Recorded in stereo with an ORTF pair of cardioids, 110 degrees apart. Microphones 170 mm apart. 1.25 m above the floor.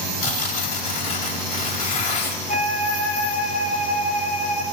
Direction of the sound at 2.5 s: 55° left.